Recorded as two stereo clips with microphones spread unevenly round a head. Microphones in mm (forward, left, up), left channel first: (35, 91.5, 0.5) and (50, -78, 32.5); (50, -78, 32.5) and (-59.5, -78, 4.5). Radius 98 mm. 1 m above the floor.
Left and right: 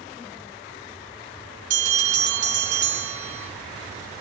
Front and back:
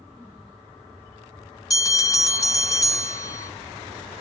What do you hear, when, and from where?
1.7 s a bell: 50° right, 2.5 m